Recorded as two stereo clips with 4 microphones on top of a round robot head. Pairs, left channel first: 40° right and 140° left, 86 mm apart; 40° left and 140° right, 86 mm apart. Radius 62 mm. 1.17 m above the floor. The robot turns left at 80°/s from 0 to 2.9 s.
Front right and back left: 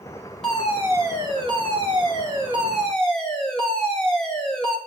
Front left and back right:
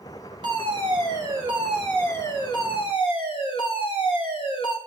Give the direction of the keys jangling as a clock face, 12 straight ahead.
No keys jangling in this recording.